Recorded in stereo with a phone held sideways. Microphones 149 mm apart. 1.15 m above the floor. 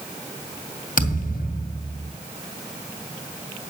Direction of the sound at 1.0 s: 70° left (ahead or behind).